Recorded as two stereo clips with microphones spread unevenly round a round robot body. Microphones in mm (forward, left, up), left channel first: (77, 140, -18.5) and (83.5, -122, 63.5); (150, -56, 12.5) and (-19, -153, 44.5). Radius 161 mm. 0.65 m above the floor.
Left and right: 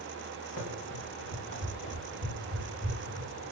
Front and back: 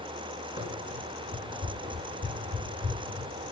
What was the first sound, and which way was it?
Running footsteps, 85° left.